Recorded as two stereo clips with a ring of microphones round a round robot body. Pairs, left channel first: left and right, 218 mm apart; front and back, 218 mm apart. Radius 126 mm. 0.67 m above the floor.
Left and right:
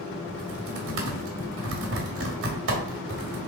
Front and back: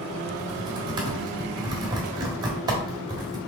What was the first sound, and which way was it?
Typing on a keyboard, 110° right.